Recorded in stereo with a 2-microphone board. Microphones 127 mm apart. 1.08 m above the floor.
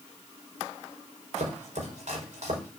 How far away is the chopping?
About 5 m.